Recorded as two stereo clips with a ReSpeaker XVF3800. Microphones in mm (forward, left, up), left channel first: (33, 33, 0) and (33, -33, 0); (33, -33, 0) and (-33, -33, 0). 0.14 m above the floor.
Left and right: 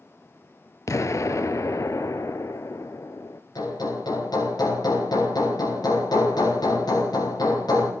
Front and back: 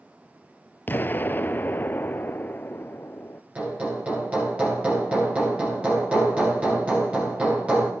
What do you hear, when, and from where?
0.9 s an explosion: 55° left, 0.6 m
3.5 s hammering: 110° left, 7 m